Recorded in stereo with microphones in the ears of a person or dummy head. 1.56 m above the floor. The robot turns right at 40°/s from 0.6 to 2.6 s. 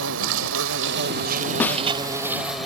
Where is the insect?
85° right; by 2.7 s 5° right.